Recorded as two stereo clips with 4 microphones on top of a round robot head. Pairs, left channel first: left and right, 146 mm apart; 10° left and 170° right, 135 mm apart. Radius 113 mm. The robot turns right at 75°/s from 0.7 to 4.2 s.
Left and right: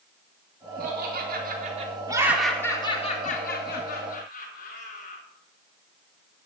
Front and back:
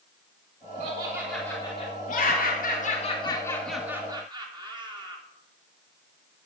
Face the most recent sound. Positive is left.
turn(degrees=135)